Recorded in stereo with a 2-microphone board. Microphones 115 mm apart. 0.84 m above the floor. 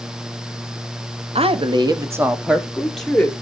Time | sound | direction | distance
1.4 | a woman speaking | 60° right (ahead or behind) | 1.3 m